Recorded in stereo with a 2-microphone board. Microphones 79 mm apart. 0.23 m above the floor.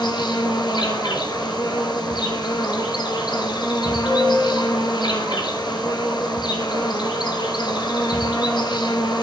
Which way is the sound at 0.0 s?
65° left (ahead or behind).